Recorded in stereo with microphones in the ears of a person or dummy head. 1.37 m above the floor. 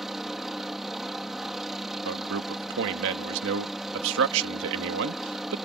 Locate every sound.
0.0 s a helicopter: centre (ahead or behind)
2.0 s a man speaking: 70° right (ahead or behind)